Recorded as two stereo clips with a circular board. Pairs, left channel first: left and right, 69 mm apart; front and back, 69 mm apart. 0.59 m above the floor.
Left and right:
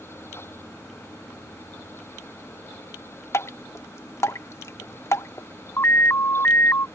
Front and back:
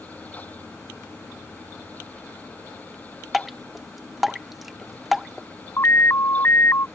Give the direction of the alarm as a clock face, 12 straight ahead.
11 o'clock.